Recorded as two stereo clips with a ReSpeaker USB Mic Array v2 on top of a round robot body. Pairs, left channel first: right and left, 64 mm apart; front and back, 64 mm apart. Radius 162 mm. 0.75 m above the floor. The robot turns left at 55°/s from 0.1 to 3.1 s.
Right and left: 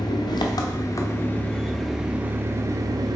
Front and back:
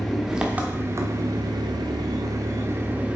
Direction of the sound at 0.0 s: 85° right.